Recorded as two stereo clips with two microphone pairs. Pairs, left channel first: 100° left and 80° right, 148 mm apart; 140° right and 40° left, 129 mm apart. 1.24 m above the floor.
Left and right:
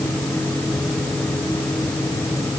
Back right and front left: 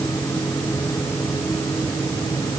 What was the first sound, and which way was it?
Only background noise.